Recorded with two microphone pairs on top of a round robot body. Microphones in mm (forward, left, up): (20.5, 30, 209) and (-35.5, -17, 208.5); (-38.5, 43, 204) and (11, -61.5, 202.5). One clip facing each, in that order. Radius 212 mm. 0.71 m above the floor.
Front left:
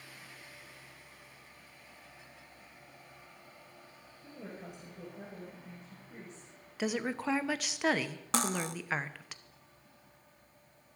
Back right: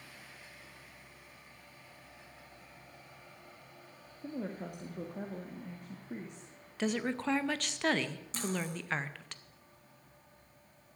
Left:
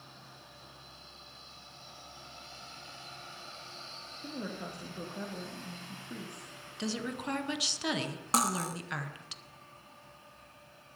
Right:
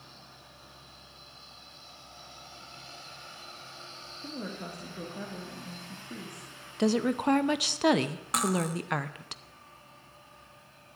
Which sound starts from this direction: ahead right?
A woman speaking, at 6.8 s.